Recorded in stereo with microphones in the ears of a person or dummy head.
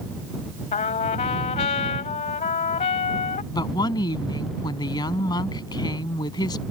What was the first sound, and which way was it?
A trumpet, 35° left (ahead or behind).